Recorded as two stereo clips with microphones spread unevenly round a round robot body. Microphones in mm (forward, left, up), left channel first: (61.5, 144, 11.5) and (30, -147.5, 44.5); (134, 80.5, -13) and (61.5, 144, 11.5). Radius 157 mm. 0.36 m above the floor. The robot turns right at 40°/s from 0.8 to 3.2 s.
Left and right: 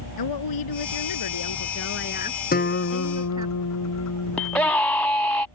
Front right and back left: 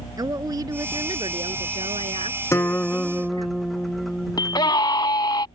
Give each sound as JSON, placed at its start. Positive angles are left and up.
{"t": 0.2, "sound": "a woman speaking", "azimuth_deg": 90}
{"t": 2.5, "sound": "a guitar", "azimuth_deg": 20}
{"t": 4.4, "sound": "a scream", "azimuth_deg": 0}